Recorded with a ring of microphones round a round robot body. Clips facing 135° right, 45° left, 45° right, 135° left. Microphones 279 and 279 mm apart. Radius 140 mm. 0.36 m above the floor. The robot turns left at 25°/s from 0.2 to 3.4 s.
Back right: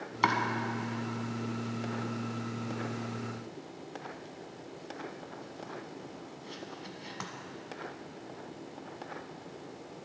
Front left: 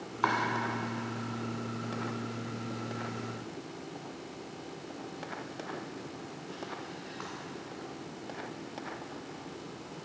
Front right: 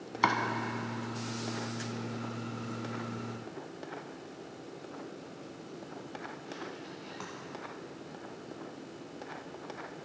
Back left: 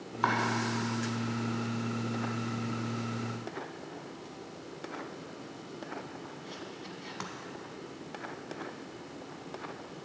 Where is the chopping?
90° right, 1.5 m; by 7.3 s 170° right, 1.5 m.